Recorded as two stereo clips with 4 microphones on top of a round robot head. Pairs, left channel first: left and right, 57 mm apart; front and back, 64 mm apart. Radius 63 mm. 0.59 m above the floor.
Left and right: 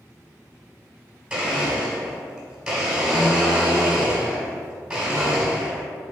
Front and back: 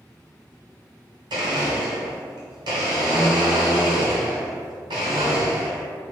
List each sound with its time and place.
1.3 s a blender: 170° right, 1.4 m